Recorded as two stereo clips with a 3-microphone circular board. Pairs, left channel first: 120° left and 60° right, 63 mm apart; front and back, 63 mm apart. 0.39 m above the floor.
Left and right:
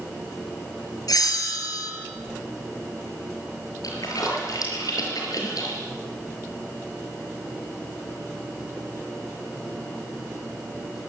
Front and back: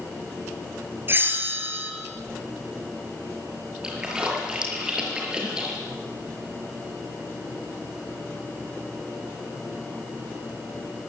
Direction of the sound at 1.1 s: 125° left.